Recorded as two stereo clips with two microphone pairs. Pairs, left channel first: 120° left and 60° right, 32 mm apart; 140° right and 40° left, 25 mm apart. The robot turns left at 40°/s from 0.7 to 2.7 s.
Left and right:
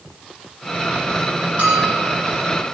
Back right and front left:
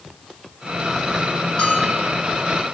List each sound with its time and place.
1.6 s a bell: 95° right, 6 m; by 2.2 s 120° right, 6 m